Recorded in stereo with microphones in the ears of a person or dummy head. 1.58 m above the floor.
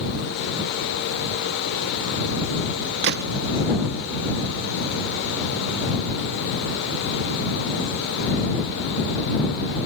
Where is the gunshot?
60° right (ahead or behind).